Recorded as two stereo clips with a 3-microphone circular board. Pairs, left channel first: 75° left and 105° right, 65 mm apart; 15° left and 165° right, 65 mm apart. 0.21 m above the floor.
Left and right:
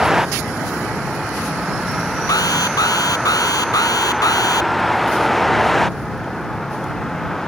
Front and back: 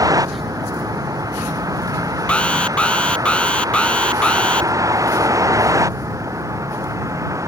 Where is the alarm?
90° left.